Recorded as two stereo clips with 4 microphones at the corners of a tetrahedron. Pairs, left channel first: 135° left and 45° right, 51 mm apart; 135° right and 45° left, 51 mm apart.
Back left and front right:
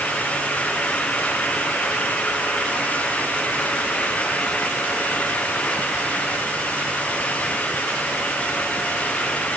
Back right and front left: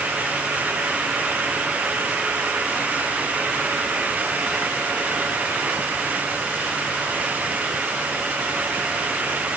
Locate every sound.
Only background noise.